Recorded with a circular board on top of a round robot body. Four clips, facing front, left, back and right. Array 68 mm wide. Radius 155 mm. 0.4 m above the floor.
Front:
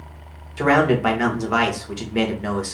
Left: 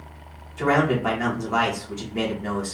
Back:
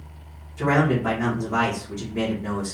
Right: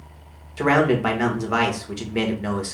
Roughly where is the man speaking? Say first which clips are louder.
Right 2 dB, front 4 dB; ahead right.